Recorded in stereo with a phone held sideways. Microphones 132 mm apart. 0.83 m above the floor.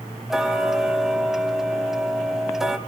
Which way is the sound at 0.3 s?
5° right (ahead or behind).